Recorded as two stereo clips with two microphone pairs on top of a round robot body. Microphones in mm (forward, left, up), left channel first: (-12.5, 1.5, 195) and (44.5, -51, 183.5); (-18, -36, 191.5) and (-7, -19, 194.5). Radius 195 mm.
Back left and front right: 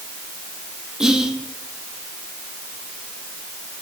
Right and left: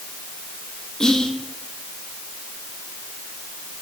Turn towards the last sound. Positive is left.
turn(degrees=-110)